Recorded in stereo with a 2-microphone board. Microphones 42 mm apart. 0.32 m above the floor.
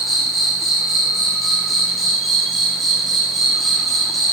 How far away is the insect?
About 1.2 m.